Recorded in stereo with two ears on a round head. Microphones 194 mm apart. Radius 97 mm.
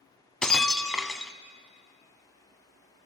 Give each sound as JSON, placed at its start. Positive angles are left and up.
{"t": 0.4, "sound": "breaking glass", "side_deg": 5, "distance_m": 0.6}